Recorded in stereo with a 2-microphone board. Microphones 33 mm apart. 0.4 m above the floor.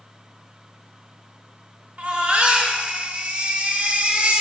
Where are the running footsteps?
No running footsteps in this recording.